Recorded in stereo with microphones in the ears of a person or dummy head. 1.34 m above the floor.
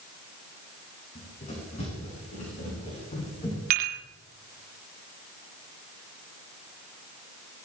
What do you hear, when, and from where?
1.1 s running footsteps: 45° left (ahead or behind), 7 m; by 3.6 s 35° left (ahead or behind), 8.5 m
3.7 s dishes clattering: 45° right (ahead or behind), 2 m